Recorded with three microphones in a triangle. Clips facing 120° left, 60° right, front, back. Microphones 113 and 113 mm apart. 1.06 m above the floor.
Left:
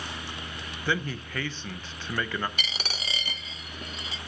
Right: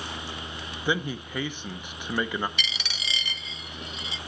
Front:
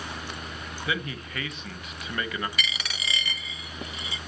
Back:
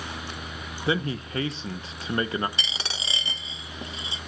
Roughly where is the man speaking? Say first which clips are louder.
Right 2 dB, back 6 dB; behind right.